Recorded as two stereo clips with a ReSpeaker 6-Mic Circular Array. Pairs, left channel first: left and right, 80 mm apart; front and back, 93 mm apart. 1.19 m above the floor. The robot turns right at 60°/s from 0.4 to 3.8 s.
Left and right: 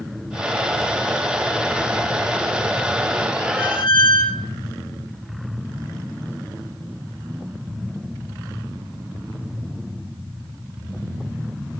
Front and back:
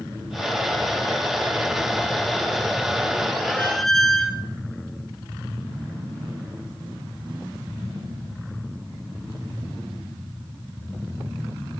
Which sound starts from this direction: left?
A squeak, at 3.6 s.